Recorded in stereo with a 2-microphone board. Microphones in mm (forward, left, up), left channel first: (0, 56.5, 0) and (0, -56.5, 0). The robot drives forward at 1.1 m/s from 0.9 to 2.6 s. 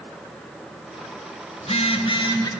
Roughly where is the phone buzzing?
Left.